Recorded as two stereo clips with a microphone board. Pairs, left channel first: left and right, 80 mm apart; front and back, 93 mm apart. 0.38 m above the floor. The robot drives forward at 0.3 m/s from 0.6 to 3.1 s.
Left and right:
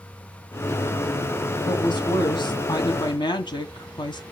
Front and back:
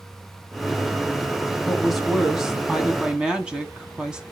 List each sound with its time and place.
1.7 s a woman speaking: 90° left, 2.5 m; by 4.2 s 100° left, 2.5 m